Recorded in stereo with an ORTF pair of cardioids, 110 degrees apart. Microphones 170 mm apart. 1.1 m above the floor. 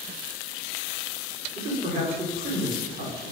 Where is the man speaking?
60° right, 3.5 m.